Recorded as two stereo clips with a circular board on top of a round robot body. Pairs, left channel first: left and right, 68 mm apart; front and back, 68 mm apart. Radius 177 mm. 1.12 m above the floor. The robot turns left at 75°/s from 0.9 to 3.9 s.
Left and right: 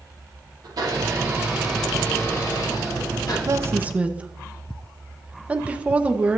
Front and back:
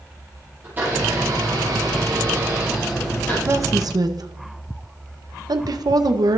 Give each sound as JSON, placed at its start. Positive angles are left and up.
{"t": 0.6, "sound": "a blender", "azimuth_deg": -115, "distance_m": 9.5}
{"t": 3.5, "sound": "a woman speaking", "azimuth_deg": -130, "distance_m": 1.5}